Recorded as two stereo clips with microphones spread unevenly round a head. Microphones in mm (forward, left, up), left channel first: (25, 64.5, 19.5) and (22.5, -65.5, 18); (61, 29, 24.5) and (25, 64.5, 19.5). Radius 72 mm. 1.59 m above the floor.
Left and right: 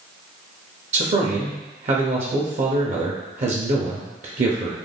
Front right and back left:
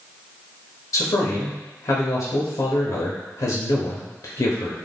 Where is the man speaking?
50° right, 0.6 m.